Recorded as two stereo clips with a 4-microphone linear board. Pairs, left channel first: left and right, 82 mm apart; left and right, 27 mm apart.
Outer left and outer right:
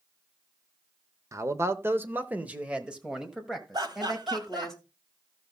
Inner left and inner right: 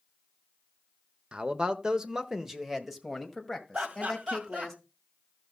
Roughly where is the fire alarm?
I don't hear a fire alarm.